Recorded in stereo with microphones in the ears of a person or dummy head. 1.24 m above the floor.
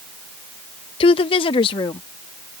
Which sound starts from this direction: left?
A woman speaking, at 1.0 s.